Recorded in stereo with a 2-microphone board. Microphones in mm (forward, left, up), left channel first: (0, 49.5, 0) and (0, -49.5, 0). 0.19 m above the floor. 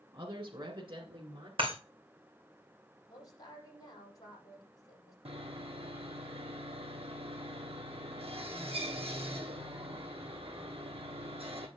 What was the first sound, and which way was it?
A woman speaking, 45° right (ahead or behind).